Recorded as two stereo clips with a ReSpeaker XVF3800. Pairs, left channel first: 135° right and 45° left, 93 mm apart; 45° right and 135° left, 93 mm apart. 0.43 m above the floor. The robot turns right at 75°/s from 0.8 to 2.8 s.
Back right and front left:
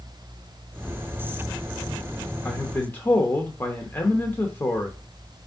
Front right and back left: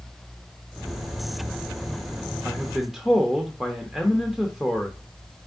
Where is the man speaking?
170° right, 0.8 m; by 5.0 s 145° right, 0.8 m.